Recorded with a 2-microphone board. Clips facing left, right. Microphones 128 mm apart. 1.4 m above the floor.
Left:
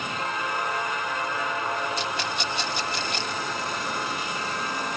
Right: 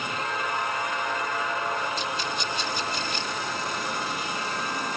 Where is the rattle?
65° left (ahead or behind).